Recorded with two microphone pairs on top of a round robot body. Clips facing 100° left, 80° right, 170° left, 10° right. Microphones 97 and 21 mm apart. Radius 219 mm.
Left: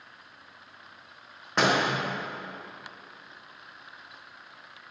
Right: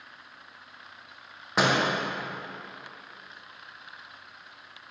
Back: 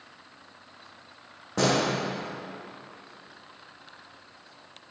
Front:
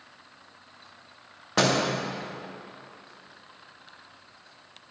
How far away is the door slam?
About 1.4 m.